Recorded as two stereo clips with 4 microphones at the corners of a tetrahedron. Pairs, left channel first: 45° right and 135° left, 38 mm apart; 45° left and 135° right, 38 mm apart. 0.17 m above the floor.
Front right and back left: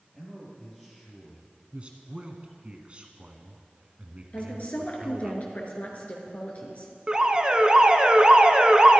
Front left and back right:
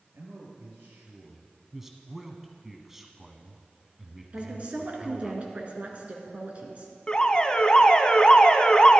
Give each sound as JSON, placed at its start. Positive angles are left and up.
{"t": 0.1, "sound": "a man speaking", "azimuth_deg": -135, "distance_m": 4.5}
{"t": 1.7, "sound": "a man speaking", "azimuth_deg": 150, "distance_m": 1.2}
{"t": 4.3, "sound": "a woman speaking", "azimuth_deg": -90, "distance_m": 2.5}
{"t": 7.1, "sound": "an alarm", "azimuth_deg": 95, "distance_m": 0.9}